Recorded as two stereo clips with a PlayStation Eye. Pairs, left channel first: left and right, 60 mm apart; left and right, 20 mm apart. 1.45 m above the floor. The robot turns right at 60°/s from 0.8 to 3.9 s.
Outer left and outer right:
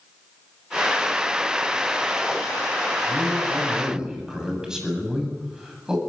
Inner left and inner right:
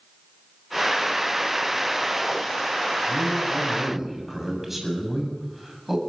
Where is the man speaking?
60° right, 8.5 m; by 6.0 s 10° right, 8.5 m.